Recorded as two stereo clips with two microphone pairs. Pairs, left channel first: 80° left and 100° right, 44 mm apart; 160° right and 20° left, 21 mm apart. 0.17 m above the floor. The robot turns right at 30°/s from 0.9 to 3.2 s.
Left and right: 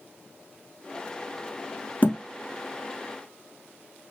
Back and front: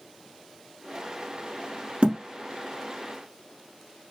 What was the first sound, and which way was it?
A thud, 40° left.